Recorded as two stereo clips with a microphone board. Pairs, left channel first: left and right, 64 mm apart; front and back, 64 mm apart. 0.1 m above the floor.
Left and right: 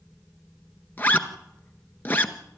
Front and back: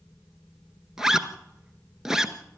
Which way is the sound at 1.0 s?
105° left.